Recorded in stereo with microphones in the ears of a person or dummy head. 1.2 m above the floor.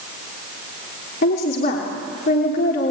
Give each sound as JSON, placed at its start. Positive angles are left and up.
{"t": 1.2, "sound": "a woman speaking", "side_deg": 60, "distance_m": 2.5}